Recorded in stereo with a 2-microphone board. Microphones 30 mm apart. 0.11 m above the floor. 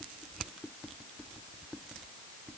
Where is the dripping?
No dripping in this recording.